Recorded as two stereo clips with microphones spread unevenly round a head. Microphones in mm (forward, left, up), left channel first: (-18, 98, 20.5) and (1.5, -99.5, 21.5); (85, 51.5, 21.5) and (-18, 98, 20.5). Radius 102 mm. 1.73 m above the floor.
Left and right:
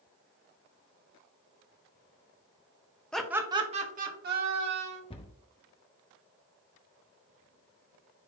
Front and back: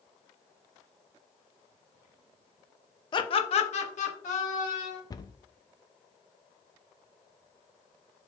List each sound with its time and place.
3.1 s laughter: 10° left, 0.8 m; by 5.0 s 50° right, 2.0 m
5.1 s a cupboard door: 30° left, 0.6 m